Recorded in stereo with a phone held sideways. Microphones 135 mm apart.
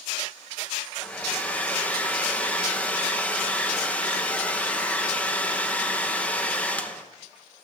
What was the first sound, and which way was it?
A hair dryer, 10° left (ahead or behind).